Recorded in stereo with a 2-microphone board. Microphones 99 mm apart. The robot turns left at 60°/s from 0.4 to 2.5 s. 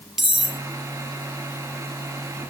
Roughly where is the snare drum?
I don't hear a snare drum.